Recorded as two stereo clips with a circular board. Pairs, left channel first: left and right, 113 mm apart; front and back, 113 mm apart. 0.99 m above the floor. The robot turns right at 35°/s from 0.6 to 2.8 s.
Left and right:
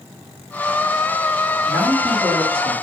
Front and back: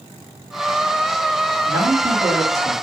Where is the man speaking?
125° right, 1.5 m; by 2.7 s 85° right, 1.5 m.